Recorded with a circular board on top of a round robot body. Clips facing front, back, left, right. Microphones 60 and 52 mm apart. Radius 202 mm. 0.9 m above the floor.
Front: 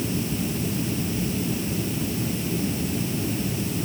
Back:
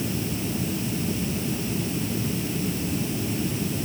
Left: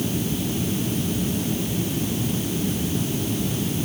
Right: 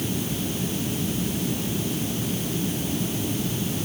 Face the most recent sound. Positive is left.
No sound to turn to.